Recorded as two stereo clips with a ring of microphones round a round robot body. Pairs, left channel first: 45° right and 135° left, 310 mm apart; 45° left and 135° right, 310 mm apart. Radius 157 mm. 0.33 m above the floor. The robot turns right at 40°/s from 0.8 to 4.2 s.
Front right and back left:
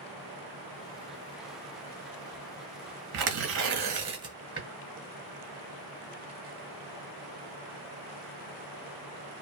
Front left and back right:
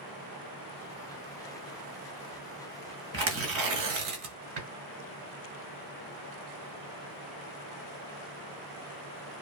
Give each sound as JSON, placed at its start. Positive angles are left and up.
{"t": 3.1, "sound": "tearing paper", "azimuth_deg": 170, "distance_m": 1.5}